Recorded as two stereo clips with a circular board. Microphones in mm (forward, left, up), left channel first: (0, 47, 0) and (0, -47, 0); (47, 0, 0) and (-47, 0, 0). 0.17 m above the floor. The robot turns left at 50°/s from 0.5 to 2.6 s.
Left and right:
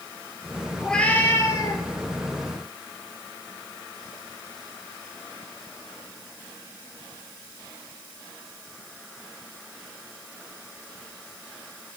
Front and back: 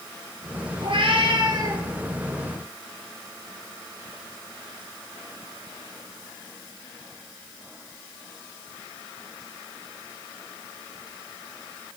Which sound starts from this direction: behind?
A cat meowing, at 0.8 s.